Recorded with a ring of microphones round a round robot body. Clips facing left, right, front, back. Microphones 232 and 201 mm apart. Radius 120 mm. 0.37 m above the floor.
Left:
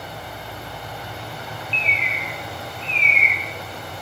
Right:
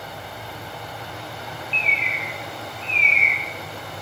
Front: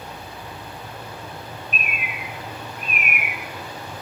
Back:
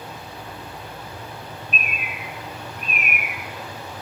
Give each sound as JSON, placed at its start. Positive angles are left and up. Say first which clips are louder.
{"t": 1.7, "sound": "a bird", "louder": "left 1 dB, even", "azimuth_deg": 130, "distance_m": 1.3}